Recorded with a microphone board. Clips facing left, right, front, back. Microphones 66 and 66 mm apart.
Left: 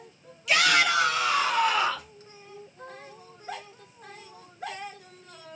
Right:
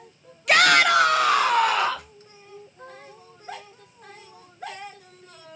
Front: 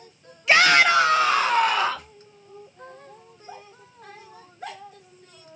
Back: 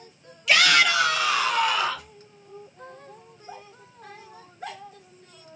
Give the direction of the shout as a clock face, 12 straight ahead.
2 o'clock.